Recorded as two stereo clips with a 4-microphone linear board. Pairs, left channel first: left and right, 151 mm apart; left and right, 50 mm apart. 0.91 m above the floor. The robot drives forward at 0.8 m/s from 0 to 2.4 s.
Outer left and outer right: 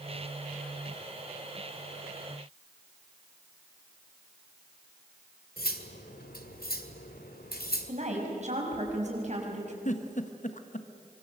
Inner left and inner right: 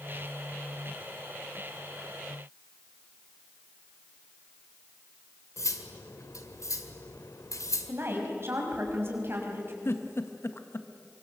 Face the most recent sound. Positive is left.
turn(degrees=55)  # may be behind; listen again after turning